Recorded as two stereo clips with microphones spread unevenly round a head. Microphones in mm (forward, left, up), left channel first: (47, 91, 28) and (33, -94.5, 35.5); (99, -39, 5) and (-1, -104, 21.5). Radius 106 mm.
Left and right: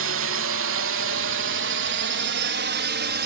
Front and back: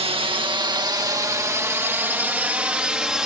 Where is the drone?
105° right; by 3.3 s 65° right.